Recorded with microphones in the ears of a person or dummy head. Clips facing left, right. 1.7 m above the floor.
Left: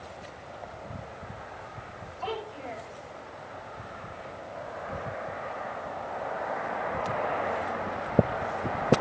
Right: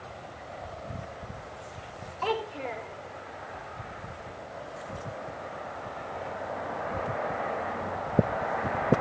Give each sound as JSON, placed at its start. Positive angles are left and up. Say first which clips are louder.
{"t": 2.2, "sound": "a child speaking", "louder": "right 4 dB", "side_deg": -80, "distance_m": 4.0}